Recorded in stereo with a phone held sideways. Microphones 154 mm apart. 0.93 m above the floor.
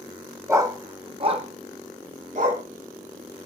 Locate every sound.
0.5 s a dog barking: 15° right (ahead or behind), 1.1 m; by 2.6 s 60° right (ahead or behind), 2 m